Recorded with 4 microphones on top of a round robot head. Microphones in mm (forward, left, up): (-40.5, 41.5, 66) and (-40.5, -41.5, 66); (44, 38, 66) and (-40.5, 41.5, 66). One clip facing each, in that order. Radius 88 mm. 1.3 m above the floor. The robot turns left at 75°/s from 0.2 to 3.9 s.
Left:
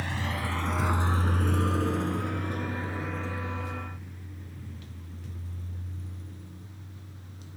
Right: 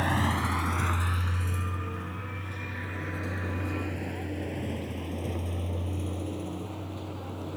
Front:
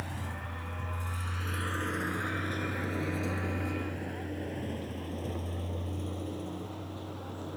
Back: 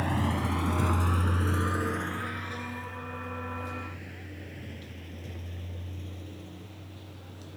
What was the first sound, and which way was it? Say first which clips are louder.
A vehicle: right 5 dB, back 11 dB; 135° right.